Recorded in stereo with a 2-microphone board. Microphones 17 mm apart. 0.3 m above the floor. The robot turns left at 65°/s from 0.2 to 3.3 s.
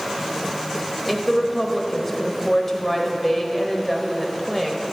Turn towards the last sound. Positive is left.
turn(degrees=20)  # may be behind; listen again after turning